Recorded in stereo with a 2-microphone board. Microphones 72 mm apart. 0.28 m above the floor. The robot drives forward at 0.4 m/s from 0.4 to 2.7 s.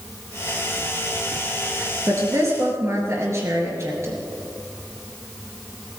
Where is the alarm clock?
No alarm clock in this recording.